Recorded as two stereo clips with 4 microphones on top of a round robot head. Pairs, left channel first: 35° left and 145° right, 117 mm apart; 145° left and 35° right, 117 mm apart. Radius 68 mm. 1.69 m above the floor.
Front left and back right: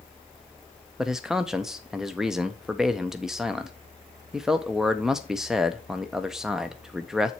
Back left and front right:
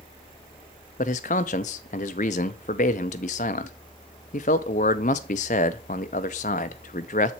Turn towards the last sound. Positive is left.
turn(degrees=125)